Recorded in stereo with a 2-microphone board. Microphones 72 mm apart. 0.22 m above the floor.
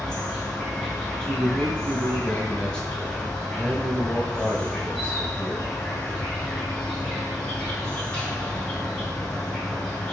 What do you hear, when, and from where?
0.0 s an insect: 10° left (ahead or behind), 1.0 m
1.2 s a man speaking: 15° left (ahead or behind), 1.0 m